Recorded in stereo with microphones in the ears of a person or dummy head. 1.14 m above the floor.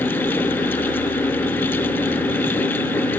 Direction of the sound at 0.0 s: 5° left (ahead or behind).